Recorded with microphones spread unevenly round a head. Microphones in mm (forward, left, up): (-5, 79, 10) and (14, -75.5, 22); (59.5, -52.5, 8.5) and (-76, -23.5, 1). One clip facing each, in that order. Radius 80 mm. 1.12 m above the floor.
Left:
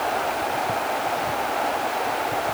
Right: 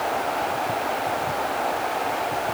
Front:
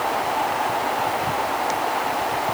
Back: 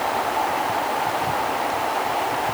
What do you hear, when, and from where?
Only background noise.